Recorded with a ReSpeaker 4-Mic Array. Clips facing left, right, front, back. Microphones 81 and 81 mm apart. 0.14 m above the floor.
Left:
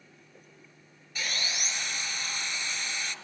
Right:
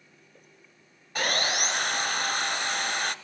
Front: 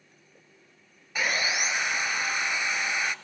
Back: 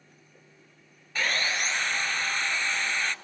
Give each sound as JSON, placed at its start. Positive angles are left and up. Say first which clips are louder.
{"t": 1.1, "sound": "sawing", "louder": "right 8 dB, front 1 dB", "azimuth_deg": -75, "distance_m": 0.9}